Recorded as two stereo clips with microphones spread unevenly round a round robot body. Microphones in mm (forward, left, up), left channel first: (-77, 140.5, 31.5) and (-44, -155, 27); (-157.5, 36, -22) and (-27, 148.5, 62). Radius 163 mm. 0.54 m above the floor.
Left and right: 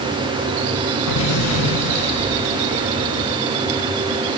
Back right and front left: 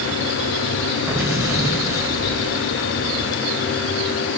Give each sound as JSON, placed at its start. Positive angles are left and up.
{"t": 1.1, "sound": "an explosion", "azimuth_deg": 120, "distance_m": 7.0}